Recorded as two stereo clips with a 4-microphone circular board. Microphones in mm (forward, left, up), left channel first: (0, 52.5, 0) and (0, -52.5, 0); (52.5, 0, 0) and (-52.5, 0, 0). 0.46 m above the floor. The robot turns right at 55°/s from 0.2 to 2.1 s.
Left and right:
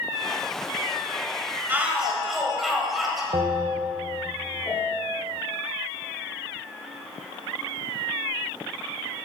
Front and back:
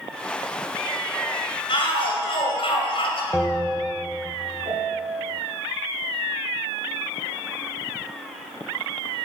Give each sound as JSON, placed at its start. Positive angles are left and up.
{"t": 1.7, "sound": "a shout", "azimuth_deg": -20, "distance_m": 2.0}
{"t": 3.3, "sound": "a bell", "azimuth_deg": -85, "distance_m": 0.8}
{"t": 4.7, "sound": "a piano", "azimuth_deg": 150, "distance_m": 2.5}